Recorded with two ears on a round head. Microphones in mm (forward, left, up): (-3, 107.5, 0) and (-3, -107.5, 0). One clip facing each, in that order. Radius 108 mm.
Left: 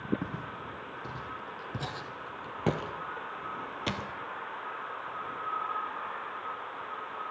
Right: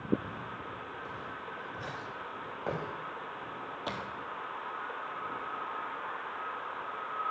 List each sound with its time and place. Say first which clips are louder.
0.2 s footsteps: left 4 dB; 55° left (ahead or behind), 2 m; by 4.1 s 30° left (ahead or behind), 1.0 m